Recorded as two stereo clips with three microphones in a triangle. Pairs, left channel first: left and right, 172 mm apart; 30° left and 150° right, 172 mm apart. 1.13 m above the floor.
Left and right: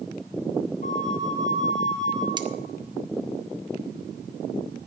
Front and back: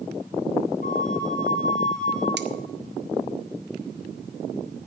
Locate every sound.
0.8 s a flute: 55° left, 1.2 m
2.4 s cutlery clinking: 155° right, 0.8 m